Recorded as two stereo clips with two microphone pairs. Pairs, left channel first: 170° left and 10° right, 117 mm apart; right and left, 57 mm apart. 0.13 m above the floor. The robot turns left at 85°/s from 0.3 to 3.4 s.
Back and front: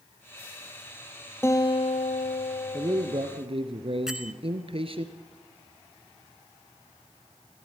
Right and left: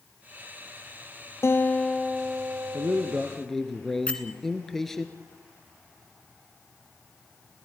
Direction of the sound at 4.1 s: 90° right.